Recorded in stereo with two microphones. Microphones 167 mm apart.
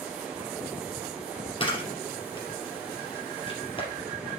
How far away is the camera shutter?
About 3.5 m.